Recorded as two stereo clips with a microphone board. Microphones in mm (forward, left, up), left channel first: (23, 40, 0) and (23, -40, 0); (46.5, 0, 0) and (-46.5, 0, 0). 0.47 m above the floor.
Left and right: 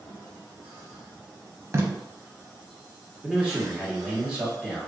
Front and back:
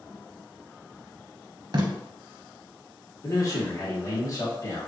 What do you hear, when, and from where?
1.7 s tape being pulled: 140° right, 0.6 m
3.2 s a man speaking: 10° right, 1.2 m